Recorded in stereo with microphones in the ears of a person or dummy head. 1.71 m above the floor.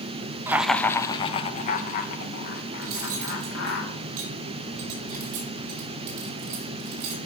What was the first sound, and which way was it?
Laughter, 10° right (ahead or behind).